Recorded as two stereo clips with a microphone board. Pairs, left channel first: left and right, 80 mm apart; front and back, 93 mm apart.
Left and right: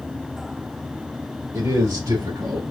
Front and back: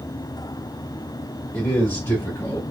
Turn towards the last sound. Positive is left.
turn(degrees=-60)